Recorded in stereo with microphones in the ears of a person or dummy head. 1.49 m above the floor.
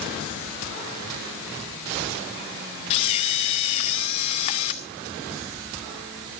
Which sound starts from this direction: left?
A camera shutter, at 2.9 s.